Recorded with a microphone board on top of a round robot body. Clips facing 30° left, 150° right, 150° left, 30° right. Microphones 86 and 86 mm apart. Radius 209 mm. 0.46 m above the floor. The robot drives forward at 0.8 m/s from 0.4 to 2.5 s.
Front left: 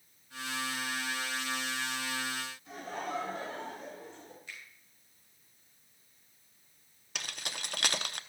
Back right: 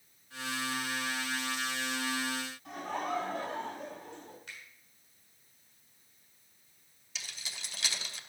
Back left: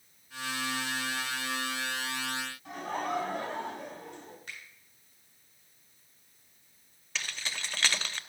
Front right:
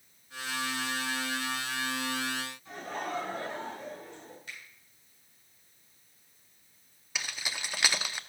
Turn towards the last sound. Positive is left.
turn(degrees=45)